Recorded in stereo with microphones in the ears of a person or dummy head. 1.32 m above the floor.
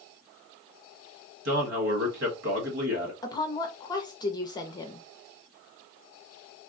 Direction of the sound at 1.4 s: 60° right (ahead or behind).